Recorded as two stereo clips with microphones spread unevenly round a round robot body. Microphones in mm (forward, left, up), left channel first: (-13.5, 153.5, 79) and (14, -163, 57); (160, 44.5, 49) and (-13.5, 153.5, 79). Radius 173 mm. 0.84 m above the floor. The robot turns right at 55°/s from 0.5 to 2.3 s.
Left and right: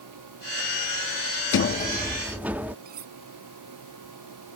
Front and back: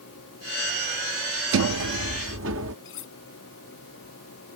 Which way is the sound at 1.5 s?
145° left.